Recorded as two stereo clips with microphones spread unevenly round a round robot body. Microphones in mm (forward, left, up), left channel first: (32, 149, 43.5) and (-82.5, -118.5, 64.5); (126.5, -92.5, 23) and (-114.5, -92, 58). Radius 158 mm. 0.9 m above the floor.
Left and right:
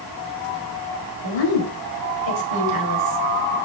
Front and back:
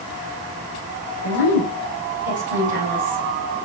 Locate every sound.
1.2 s a woman speaking: 50° left, 4 m